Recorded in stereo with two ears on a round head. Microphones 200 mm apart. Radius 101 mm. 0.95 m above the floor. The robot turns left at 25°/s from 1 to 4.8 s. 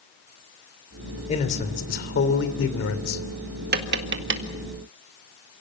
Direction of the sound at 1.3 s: 150° left.